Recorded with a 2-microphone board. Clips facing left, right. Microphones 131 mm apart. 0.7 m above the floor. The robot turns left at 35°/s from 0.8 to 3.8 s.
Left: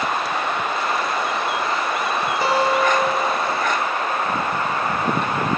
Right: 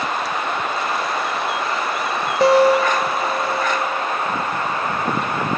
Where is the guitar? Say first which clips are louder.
Right 7 dB; 85° right, 1.1 m; by 4.1 s 135° right, 1.1 m.